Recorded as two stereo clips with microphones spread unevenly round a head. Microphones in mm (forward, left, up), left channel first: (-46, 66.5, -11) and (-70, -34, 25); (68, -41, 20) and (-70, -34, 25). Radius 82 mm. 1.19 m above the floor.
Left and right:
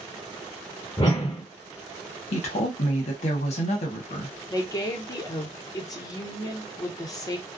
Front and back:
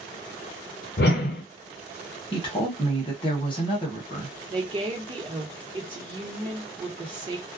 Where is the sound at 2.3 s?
55° left, 0.9 m.